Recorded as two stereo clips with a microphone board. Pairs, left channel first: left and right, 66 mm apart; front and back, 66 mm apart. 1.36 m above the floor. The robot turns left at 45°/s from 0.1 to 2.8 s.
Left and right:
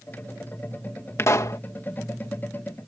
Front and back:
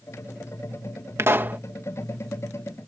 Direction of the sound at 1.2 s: 135° left.